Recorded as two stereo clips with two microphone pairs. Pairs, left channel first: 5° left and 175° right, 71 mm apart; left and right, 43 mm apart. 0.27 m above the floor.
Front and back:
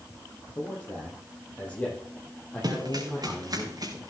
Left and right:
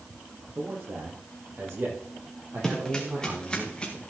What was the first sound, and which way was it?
A man speaking, 60° right.